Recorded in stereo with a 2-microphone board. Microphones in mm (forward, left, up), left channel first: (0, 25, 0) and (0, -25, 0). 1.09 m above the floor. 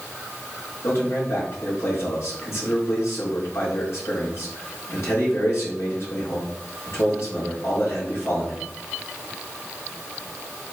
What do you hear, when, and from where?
0.8 s a man speaking: 70° left (ahead or behind), 3 m